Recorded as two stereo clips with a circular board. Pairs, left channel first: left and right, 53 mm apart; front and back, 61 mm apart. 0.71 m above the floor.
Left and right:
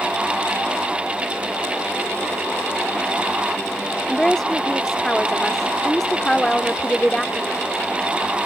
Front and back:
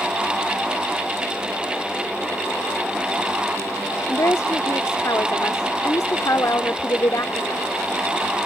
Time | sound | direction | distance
4.1 | a woman speaking | 10° left | ?